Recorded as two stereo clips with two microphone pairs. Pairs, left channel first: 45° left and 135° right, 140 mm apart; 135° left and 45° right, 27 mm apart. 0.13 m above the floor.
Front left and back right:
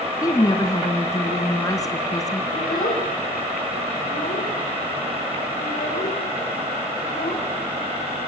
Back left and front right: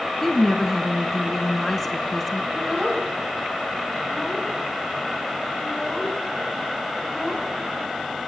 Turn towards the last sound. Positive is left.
turn(degrees=40)